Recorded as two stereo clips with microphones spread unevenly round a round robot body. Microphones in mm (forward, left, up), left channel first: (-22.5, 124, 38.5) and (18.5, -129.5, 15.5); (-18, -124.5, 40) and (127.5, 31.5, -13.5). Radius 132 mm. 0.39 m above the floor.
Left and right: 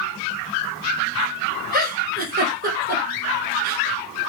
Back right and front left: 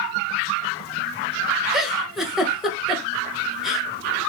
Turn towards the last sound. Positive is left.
turn(degrees=-30)